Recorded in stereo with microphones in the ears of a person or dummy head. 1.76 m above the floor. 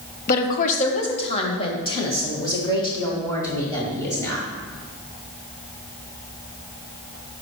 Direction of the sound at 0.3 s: 50° left (ahead or behind).